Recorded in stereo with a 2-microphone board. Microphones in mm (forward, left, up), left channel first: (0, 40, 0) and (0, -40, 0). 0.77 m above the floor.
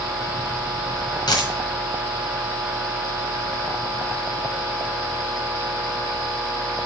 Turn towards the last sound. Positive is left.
turn(degrees=60)  # may be behind; listen again after turning